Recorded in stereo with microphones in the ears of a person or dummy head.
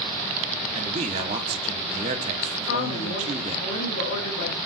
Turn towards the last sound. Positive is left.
turn(degrees=75)  # may be behind; listen again after turning